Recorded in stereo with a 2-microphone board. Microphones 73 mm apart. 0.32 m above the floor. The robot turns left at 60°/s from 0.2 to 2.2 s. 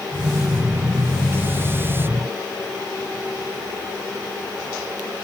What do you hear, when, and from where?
Only background noise.